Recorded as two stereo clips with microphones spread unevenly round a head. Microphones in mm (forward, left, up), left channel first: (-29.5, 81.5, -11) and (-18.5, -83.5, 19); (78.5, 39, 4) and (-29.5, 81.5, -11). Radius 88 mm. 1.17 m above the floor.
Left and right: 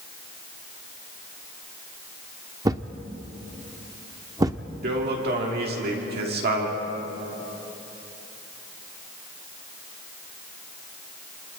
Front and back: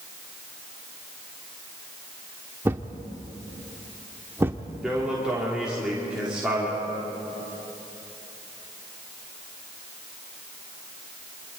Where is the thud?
125° right, 0.8 m.